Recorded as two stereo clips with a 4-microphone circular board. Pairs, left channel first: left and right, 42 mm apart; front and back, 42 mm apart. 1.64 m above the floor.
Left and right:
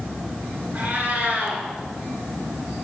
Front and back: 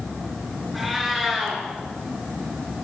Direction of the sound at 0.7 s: 95° right.